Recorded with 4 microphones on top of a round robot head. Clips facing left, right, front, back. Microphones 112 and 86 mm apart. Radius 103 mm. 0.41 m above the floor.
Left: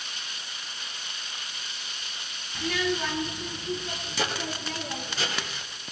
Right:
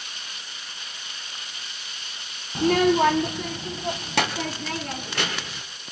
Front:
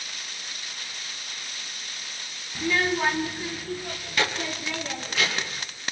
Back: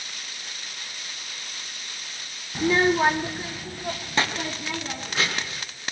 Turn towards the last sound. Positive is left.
turn(degrees=-110)